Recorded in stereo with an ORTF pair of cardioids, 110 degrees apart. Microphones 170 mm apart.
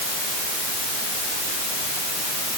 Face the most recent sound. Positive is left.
No sound to turn to.